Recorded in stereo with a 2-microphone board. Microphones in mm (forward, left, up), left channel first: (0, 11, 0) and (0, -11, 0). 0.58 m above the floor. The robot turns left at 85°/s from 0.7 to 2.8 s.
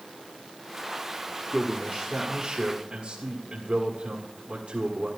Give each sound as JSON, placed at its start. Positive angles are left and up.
{"t": 1.5, "sound": "a man speaking", "azimuth_deg": 60, "distance_m": 1.7}